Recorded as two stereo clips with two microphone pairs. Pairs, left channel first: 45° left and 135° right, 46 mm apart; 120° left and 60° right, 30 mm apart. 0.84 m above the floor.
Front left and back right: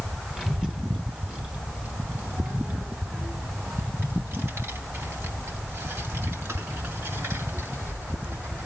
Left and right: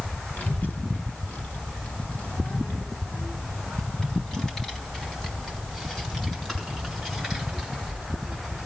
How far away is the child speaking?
About 3.5 m.